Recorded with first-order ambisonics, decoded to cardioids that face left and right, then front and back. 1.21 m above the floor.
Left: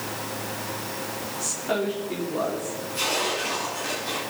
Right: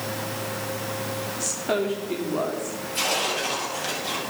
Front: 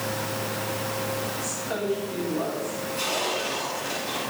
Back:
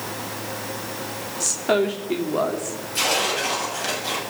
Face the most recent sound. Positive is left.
turn(degrees=-155)